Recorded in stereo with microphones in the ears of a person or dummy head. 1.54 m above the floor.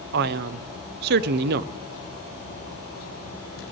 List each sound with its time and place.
0.1 s a man speaking: 55° right (ahead or behind), 0.5 m